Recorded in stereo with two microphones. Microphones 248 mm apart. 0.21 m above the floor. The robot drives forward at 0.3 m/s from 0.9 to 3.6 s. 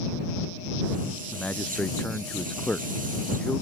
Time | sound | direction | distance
1.3 | a man speaking | 5° left (ahead or behind) | ?